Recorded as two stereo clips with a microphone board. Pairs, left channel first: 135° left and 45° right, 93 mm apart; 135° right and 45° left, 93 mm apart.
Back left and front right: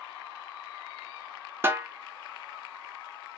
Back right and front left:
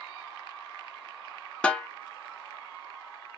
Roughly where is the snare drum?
Right.